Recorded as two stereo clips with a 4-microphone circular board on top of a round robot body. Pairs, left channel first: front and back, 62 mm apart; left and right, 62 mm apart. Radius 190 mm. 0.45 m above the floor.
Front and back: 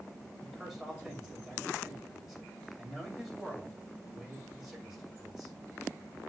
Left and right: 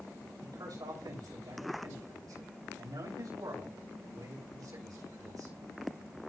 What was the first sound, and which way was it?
A man speaking, 95° right.